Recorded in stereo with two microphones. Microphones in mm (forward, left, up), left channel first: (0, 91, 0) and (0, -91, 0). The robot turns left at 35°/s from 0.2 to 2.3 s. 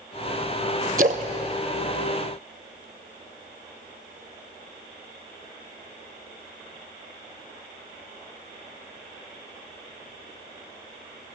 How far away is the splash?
About 0.7 m.